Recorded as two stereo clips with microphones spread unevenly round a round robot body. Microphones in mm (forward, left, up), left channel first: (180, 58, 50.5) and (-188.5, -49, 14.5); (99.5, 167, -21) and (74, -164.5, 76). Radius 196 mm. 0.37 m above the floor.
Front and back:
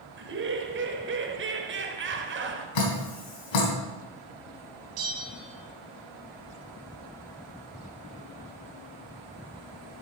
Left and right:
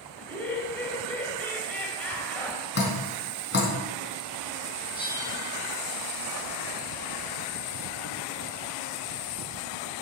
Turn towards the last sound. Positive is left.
turn(degrees=-160)